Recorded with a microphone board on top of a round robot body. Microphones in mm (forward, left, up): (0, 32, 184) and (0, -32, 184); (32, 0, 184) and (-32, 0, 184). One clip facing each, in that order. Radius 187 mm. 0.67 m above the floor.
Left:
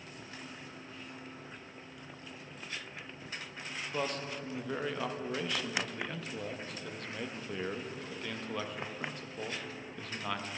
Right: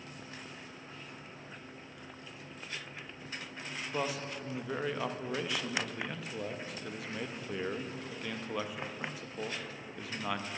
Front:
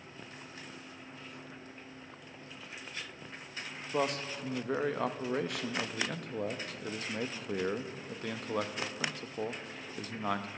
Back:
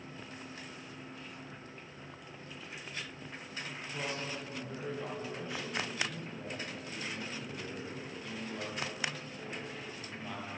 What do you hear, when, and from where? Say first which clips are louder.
3.9 s a man speaking: even, front 7 dB; 5° right, 0.8 m